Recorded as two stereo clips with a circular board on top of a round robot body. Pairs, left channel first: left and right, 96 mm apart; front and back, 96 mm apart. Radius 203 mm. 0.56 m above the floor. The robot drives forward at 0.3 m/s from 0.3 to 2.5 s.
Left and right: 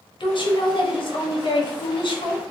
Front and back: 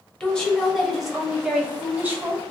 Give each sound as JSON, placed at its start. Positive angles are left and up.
{"t": 0.2, "sound": "a woman speaking", "azimuth_deg": 80, "distance_m": 1.3}